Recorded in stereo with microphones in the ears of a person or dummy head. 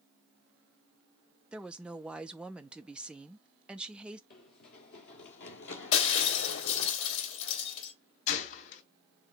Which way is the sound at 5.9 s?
75° left (ahead or behind).